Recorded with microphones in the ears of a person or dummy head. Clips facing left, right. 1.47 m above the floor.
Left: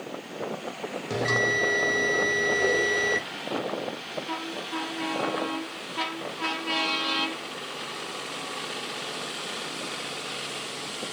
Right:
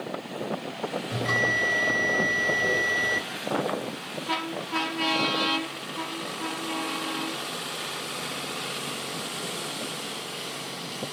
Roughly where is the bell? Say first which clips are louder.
Left 2 dB; left.